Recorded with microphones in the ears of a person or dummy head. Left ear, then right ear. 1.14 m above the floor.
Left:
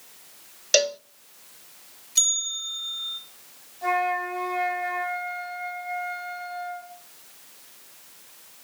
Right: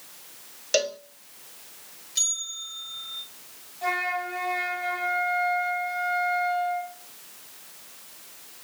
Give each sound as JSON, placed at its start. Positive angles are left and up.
{"t": 0.7, "sound": "a cowbell", "side_deg": 25, "distance_m": 0.6}
{"t": 2.1, "sound": "a bell", "side_deg": 30, "distance_m": 4.0}
{"t": 3.8, "sound": "a flute", "side_deg": 0, "distance_m": 8.5}